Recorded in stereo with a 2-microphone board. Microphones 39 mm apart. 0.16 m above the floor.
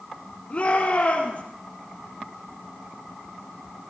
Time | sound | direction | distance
0.5 | a shout | 40° left (ahead or behind) | 4 m